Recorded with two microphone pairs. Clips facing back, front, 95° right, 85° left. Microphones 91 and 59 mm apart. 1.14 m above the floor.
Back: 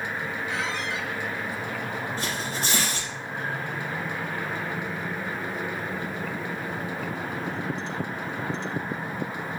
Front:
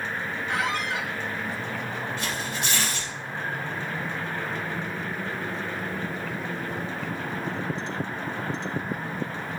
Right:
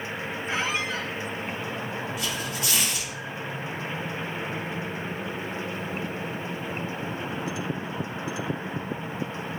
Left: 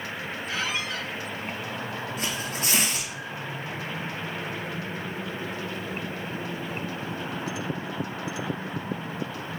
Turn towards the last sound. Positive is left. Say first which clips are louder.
# even, even
turn(degrees=130)